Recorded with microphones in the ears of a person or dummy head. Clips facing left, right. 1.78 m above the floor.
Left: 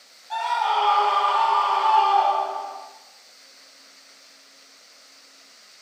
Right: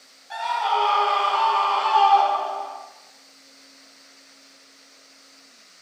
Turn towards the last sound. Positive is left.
turn(degrees=-80)